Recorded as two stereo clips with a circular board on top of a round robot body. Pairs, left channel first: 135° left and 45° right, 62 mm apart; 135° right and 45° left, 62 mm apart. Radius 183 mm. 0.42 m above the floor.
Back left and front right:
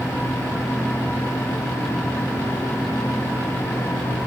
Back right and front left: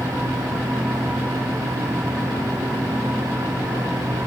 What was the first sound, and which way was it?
Only background noise.